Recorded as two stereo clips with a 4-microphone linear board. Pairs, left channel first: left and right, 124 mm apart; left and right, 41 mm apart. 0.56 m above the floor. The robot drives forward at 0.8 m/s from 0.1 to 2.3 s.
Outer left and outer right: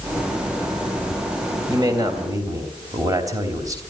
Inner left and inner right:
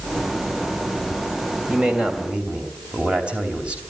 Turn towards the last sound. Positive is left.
turn(degrees=-30)  # may be behind; listen again after turning